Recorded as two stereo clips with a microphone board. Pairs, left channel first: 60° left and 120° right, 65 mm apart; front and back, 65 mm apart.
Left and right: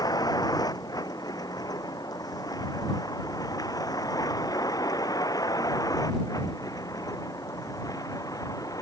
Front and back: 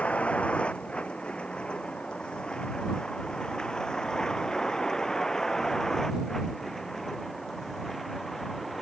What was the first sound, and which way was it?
A vehicle, 70° left.